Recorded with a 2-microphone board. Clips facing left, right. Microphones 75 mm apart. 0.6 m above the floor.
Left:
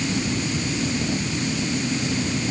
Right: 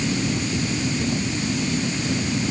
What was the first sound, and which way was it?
Only background noise.